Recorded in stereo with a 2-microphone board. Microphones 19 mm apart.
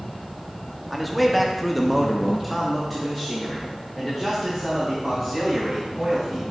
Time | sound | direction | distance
0.9 | a man speaking | centre (ahead or behind) | 1.1 m